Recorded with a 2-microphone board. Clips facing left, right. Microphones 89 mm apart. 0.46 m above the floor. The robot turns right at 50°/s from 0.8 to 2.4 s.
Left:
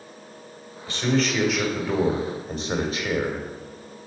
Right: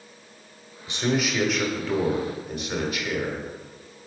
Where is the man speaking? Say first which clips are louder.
Left 2 dB; 30° right, 1.2 m; by 3.4 s 45° left, 1.2 m.